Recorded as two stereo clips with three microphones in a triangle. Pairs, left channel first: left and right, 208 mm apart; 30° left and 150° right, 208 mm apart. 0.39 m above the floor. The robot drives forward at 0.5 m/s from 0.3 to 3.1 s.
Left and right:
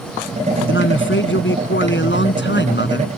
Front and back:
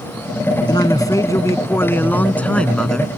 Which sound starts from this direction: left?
A man speaking, at 0.7 s.